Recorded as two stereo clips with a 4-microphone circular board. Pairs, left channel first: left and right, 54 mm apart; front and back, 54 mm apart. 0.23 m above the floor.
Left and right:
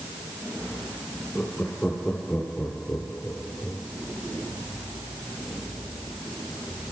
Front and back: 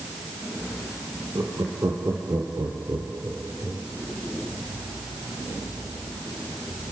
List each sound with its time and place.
1.4 s laughter: 160° left, 6.5 m; by 3.8 s 135° left, 4 m